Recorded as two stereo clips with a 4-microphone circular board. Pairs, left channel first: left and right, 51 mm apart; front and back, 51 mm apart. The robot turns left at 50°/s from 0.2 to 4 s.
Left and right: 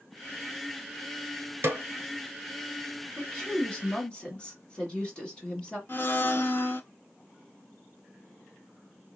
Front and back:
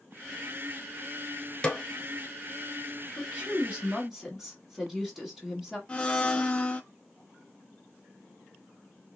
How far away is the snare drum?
About 0.8 m.